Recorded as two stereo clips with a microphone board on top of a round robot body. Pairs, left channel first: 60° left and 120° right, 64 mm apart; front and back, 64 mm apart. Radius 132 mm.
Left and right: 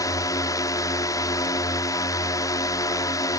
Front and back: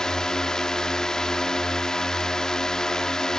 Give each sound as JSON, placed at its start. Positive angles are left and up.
{"t": 0.0, "sound": "a drone", "azimuth_deg": 80}